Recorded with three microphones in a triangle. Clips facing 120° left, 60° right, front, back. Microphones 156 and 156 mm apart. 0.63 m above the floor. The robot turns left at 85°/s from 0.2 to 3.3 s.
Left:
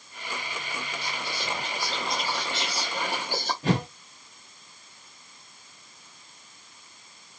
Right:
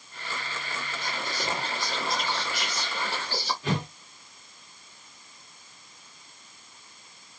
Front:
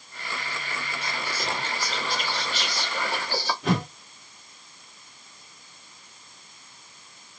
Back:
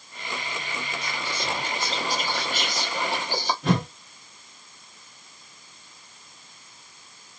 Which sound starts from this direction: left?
A whoosh, at 3.6 s.